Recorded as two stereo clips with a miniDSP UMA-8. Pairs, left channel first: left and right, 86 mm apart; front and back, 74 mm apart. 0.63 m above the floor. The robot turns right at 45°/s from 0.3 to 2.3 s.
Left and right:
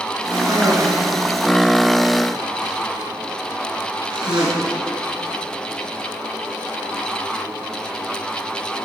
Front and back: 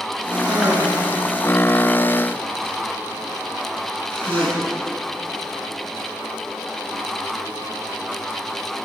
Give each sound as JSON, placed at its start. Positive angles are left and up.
{"t": 0.3, "sound": "a cough", "azimuth_deg": -160, "distance_m": 9.5}